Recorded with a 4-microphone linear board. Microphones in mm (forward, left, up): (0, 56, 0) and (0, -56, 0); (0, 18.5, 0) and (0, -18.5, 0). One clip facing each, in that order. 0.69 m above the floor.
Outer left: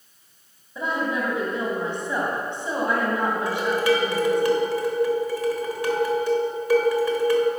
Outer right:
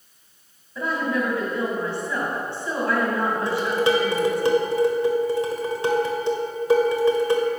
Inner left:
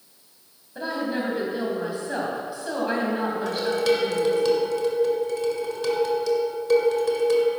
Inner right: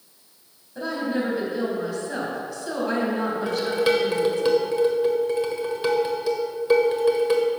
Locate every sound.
0.8 s a woman speaking: 20° left (ahead or behind), 3.5 m
3.5 s dishes clattering: 25° right (ahead or behind), 1.6 m